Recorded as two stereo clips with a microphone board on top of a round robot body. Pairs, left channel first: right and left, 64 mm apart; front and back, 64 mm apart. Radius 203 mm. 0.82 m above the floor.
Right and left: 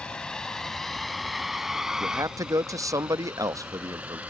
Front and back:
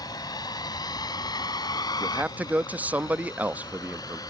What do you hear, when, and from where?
0.0 s a vehicle: 15° right; by 4.3 s 20° left
2.0 s a man speaking: 115° left